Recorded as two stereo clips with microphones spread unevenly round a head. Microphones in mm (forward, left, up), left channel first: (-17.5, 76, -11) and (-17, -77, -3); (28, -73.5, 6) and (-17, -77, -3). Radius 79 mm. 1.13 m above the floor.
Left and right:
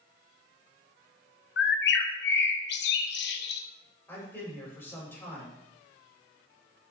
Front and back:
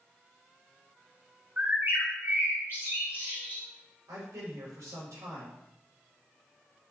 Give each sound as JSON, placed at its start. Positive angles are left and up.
{"t": 1.6, "sound": "a bird", "azimuth_deg": 105, "distance_m": 0.8}
{"t": 4.1, "sound": "a man speaking", "azimuth_deg": 170, "distance_m": 4.0}